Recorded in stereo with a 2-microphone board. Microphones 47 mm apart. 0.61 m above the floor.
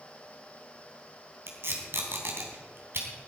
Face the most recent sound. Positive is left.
turn(degrees=-60)  # may be behind; listen again after turning